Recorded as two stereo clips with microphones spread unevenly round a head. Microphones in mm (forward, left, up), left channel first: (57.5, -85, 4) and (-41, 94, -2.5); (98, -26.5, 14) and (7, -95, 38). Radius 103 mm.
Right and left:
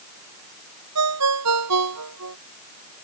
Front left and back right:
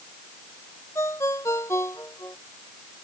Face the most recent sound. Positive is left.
turn(degrees=115)